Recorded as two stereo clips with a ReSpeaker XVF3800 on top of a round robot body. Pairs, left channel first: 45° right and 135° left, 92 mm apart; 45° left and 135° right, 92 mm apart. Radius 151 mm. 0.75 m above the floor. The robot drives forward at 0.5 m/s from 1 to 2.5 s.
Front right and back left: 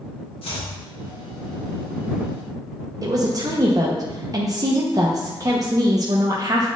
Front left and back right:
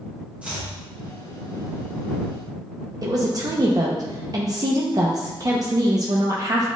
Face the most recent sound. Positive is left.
turn(degrees=180)